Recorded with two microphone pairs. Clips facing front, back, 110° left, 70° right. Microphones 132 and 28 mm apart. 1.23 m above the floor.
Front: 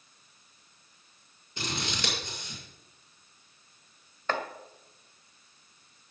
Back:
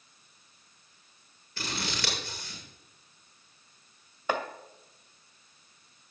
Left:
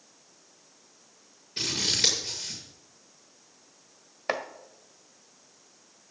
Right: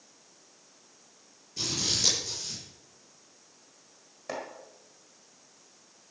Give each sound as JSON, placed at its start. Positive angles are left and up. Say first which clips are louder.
{"t": 1.6, "sound": "scissors", "louder": "front 1 dB, left 3 dB", "azimuth_deg": 70, "distance_m": 7.0}
{"t": 4.3, "sound": "chopping", "louder": "back 1 dB, left 6 dB", "azimuth_deg": 105, "distance_m": 1.4}